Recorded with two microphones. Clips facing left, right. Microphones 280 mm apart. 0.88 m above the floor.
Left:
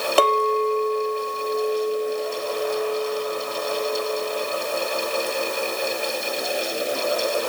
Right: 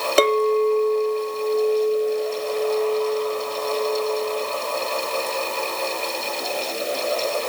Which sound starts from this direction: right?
A clink, at 0.2 s.